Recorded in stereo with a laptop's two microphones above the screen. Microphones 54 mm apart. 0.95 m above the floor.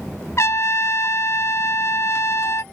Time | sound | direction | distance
0.4 | a trumpet | 55° left (ahead or behind) | ?